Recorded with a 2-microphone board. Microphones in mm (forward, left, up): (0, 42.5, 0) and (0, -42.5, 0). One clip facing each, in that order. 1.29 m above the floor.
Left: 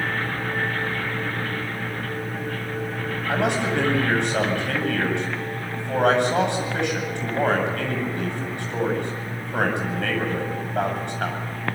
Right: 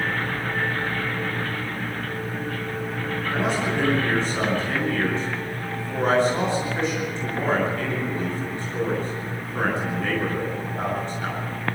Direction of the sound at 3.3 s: 70° left (ahead or behind).